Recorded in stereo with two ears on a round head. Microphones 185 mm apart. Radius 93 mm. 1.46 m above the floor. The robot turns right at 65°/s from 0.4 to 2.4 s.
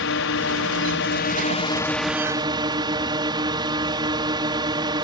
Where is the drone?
75° left; by 5.0 s 155° right.